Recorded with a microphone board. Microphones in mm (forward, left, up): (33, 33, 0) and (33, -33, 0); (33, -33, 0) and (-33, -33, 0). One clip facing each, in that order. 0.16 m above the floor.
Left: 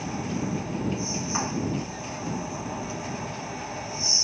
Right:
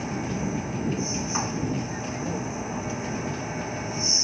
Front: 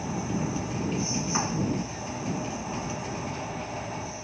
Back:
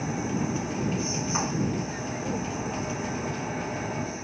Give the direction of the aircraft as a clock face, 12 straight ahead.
5 o'clock.